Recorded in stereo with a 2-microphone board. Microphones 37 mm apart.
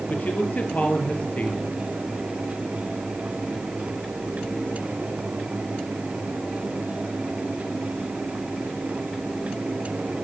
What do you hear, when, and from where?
0.1 s a man speaking: 45° left (ahead or behind), 2.5 m